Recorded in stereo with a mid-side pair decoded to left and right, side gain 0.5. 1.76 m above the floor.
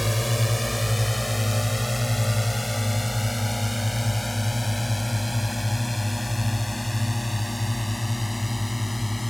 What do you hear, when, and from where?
0.0 s a drone: straight ahead; by 9.3 s 5° left